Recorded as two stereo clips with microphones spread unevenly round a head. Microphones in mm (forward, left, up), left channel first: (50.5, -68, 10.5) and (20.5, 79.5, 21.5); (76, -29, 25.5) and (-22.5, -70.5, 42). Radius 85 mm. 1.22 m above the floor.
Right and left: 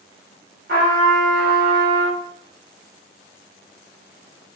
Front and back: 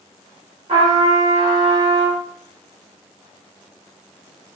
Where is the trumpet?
145° left, 1.5 m.